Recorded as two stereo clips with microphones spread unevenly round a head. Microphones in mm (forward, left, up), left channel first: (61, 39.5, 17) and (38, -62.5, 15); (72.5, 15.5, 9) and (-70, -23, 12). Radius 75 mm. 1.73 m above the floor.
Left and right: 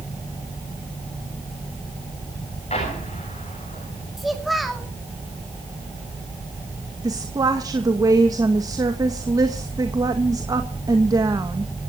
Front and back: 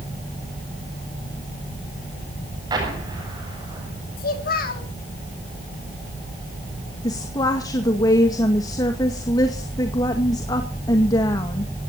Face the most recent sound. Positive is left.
turn(degrees=-50)